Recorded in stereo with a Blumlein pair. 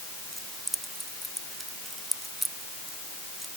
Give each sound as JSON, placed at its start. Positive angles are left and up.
{"t": 0.3, "sound": "keys jangling", "azimuth_deg": -5}